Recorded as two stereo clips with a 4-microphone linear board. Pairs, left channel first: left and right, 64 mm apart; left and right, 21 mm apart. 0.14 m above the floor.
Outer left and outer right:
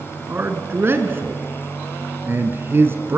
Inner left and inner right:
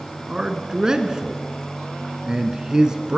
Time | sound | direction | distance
0.3 | a man speaking | 35° right (ahead or behind) | 1.4 m